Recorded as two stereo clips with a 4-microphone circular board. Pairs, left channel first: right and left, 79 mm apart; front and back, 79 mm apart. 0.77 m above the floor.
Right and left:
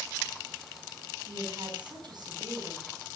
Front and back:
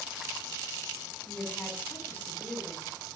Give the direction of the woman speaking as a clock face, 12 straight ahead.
10 o'clock.